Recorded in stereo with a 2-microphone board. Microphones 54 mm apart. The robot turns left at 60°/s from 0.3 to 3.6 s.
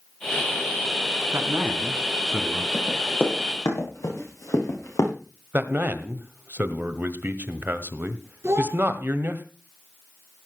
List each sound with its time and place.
1.3 s a man speaking: 120° right, 2 m; by 2.6 s 160° left, 2 m
2.7 s running footsteps: 15° left (ahead or behind), 7.5 m; by 5.1 s 80° left, 7 m
5.5 s a man speaking: 35° right (ahead or behind), 1.3 m
8.4 s a child speaking: 55° right (ahead or behind), 3 m